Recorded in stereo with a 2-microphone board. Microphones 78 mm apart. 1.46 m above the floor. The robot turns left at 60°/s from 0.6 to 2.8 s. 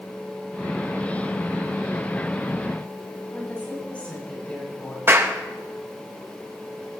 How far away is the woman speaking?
About 6 m.